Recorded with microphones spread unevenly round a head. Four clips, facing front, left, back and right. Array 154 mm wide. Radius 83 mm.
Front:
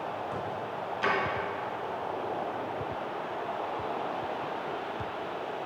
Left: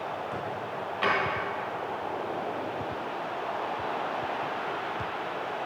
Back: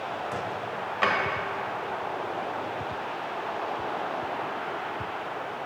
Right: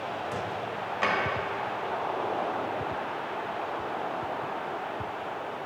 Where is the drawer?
170° right, 1.9 m.